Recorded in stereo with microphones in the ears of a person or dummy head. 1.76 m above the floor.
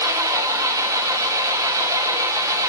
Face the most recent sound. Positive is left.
turn(degrees=-15)  # may be behind; listen again after turning